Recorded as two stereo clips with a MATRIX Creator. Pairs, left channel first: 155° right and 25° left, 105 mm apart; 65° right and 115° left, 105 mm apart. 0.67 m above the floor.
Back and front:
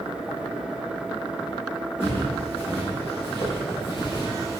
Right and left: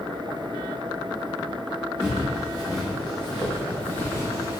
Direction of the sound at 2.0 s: 165° right.